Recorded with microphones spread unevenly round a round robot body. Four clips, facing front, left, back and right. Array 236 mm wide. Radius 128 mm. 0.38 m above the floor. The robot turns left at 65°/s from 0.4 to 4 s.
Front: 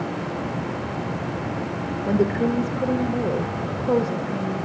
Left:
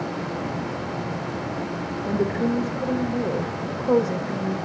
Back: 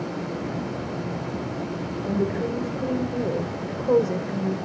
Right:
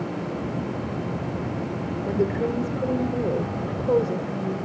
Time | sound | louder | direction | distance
2.1 | a woman speaking | left 1 dB, front 5 dB | 25° right | 1.1 m